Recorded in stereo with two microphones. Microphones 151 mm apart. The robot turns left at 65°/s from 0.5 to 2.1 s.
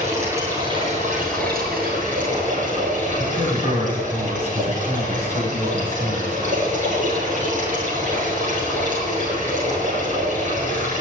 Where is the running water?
20° right, 8 m; by 11.0 s 125° right, 8 m.